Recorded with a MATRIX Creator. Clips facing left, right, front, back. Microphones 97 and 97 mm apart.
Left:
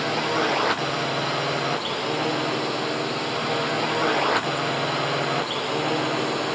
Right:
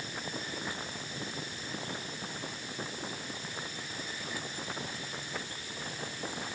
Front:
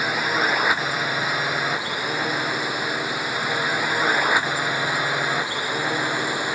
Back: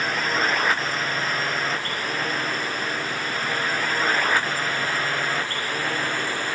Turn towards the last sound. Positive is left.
turn(degrees=75)